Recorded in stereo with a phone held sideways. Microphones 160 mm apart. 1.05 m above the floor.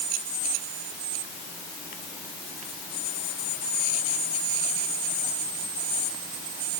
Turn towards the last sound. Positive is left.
No sound to turn to.